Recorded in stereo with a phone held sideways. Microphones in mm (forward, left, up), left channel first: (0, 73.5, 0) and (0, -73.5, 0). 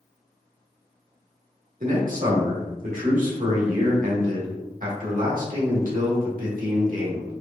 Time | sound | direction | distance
1.8 | a man speaking | 65° right (ahead or behind) | 1.6 m